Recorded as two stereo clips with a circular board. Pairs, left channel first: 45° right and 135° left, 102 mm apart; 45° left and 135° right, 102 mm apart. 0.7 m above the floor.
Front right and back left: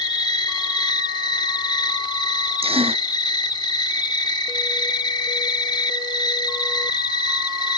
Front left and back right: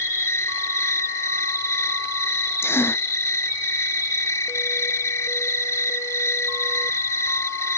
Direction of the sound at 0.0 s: 10° right.